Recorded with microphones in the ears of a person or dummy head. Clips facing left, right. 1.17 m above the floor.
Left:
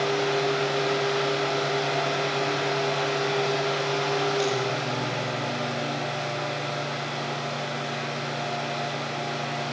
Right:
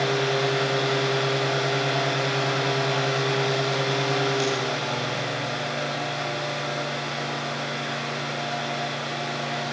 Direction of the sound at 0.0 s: 5° right (ahead or behind).